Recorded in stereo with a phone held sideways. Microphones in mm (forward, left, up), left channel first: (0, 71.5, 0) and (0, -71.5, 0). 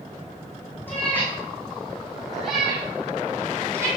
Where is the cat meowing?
15° left (ahead or behind), 3.5 m; by 3.9 s 20° right (ahead or behind), 3 m.